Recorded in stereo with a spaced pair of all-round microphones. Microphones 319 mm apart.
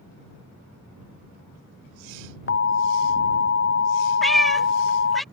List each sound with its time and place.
2.5 s an alarm: 45° left (ahead or behind)
4.2 s a cat meowing: centre (ahead or behind)